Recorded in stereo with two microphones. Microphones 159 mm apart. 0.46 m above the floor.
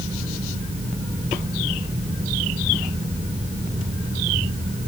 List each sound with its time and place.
Only background noise.